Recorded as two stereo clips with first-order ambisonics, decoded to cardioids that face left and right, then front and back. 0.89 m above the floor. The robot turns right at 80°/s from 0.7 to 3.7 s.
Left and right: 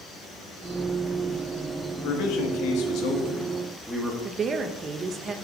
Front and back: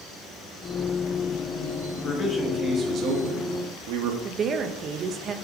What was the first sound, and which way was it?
A man speaking, 40° left.